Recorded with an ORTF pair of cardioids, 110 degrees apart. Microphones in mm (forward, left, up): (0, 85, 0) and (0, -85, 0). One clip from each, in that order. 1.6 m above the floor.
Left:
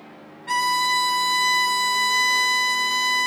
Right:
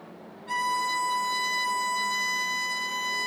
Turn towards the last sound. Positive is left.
turn(degrees=50)